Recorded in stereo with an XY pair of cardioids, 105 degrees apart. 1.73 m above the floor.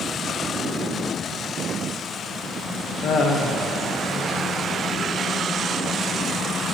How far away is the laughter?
About 1.6 m.